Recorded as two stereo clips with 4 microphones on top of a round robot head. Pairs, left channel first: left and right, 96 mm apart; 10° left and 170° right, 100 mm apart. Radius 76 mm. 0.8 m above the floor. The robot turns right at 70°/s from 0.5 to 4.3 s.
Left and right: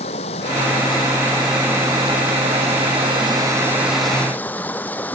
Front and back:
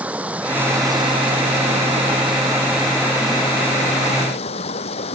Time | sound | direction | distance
0.0 | running water | 115° left | ?